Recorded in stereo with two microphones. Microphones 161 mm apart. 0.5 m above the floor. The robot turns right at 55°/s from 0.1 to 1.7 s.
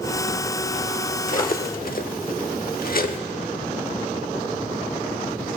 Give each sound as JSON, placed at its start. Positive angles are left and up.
{"t": 1.3, "sound": "cutlery clinking", "side_deg": 55, "distance_m": 0.8}